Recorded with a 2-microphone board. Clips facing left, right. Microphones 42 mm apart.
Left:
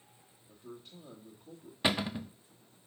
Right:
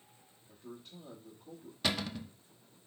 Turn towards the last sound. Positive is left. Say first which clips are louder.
# left 4 dB
turn(degrees=25)  # may be behind; listen again after turning